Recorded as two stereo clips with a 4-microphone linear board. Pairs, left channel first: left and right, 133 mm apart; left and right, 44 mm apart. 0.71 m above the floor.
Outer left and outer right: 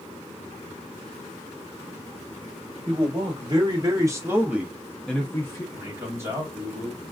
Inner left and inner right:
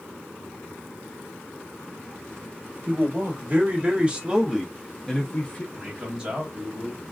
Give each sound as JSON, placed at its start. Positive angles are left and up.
{"t": 2.9, "sound": "a man speaking", "side_deg": -45, "distance_m": 1.4}
{"t": 5.7, "sound": "a man speaking", "side_deg": -20, "distance_m": 1.5}